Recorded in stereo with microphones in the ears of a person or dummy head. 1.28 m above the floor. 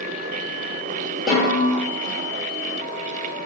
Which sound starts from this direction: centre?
A snare drum, at 1.3 s.